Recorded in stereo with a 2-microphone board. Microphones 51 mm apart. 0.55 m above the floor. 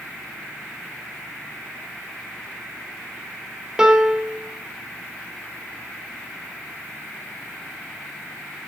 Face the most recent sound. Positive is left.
turn(degrees=-15)  # may be behind; listen again after turning